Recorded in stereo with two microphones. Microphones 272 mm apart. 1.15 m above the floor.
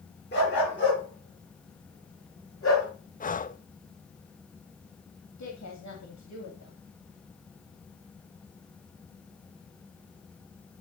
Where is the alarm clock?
I don't hear an alarm clock.